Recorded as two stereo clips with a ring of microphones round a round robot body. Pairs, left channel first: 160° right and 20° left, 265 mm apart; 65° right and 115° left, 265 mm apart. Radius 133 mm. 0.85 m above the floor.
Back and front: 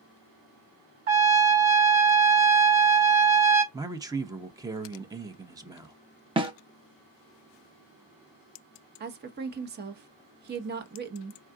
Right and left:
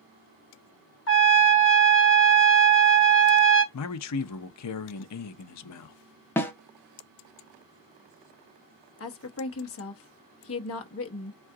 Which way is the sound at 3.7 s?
55° right.